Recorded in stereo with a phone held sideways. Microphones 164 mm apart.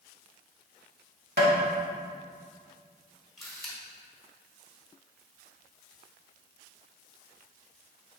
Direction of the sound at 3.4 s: Centre (ahead or behind).